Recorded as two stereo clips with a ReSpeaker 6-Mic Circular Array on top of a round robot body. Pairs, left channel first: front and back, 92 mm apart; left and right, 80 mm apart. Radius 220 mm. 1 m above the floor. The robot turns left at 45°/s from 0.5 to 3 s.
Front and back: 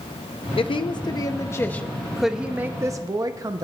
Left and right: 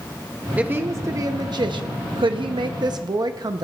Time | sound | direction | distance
0.6 | a woman speaking | 20° right | 0.7 m